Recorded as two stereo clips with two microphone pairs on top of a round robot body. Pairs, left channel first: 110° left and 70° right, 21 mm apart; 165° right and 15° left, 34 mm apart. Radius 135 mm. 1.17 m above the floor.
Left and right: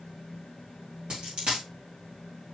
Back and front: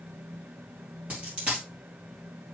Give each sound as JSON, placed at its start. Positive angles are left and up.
{"t": 1.1, "sound": "a dropped coin", "azimuth_deg": -45, "distance_m": 3.0}